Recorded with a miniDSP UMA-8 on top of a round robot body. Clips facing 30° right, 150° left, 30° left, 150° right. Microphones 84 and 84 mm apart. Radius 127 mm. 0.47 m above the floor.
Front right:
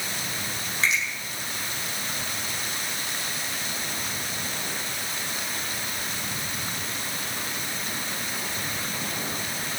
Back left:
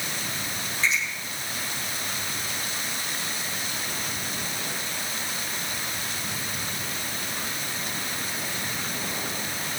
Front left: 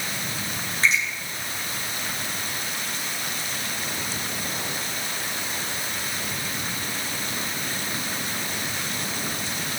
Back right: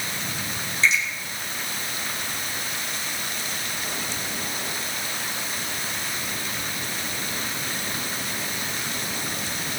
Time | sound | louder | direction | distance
0.8 | a finger snap | front right 1 dB, back right 1 dB | 15° right | 9 m